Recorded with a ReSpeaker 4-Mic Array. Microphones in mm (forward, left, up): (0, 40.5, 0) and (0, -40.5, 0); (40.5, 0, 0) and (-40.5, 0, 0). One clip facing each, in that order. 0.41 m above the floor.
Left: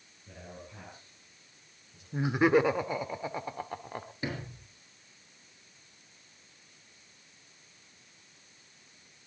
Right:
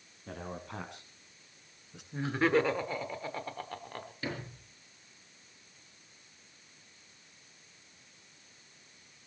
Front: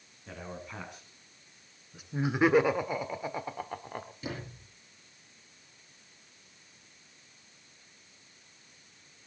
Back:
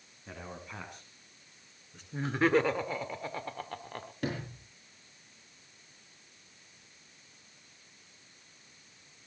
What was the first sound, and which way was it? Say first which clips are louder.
A man speaking: right 6 dB, front 2 dB; 95° right.